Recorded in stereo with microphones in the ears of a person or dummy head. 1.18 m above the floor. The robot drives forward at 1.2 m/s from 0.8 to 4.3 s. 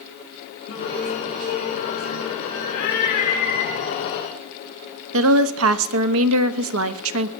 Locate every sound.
0.7 s singing: 65° left (ahead or behind), 2.5 m; by 3.7 s 25° left (ahead or behind), 5 m
2.7 s a cat meowing: 60° left (ahead or behind), 3.5 m; by 4.4 s 40° left (ahead or behind), 5 m
5.1 s a woman speaking: 75° right (ahead or behind), 1.0 m